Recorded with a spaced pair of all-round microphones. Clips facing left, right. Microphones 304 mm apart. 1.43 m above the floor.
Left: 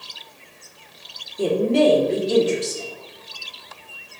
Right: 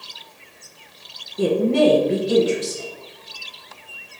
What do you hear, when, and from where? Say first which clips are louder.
1.4 s a woman speaking: right 1 dB; 70° right (ahead or behind), 0.9 m